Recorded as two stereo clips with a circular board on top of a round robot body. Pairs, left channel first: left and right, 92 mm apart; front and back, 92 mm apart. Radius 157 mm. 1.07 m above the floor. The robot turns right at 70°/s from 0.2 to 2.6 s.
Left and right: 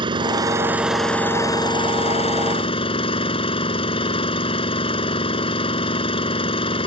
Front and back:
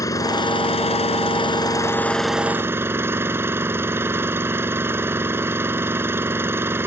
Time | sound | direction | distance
0.0 | an engine running | 55° right | ?